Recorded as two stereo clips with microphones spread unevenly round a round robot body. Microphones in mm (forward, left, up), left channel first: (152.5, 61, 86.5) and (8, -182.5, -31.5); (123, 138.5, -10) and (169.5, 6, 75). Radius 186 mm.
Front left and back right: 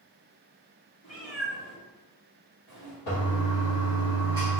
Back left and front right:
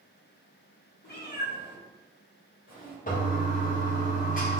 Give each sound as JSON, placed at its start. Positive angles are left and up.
{"t": 1.0, "sound": "a cat meowing", "azimuth_deg": 120, "distance_m": 2.0}
{"t": 3.1, "sound": "a toilet flushing", "azimuth_deg": 90, "distance_m": 1.4}